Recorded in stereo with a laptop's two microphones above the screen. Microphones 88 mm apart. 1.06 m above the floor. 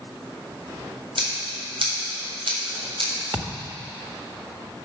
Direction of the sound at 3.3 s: 25° right (ahead or behind).